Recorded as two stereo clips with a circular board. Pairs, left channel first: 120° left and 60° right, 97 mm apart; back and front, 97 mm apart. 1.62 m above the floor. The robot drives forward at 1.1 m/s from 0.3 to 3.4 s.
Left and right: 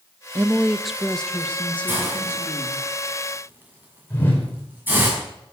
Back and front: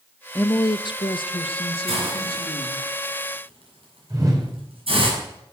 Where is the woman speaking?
110° right, 0.6 m; by 2.9 s 170° right, 3 m.